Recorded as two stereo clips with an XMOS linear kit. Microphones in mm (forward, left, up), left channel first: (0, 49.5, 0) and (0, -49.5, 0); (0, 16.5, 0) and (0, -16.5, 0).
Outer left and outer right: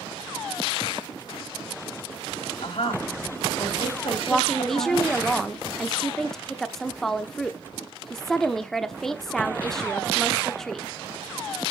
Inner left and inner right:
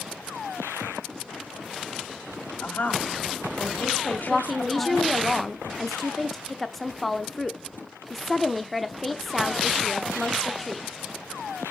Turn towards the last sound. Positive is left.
turn(degrees=5)  # may be behind; listen again after turning